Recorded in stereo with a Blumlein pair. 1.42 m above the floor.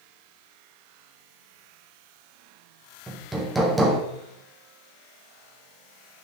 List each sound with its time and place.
3.1 s hammering: 10° right, 1.6 m